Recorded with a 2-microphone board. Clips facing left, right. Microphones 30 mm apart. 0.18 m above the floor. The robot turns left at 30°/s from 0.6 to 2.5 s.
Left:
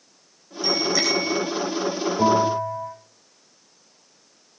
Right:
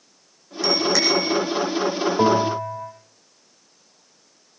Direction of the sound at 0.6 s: 80° right.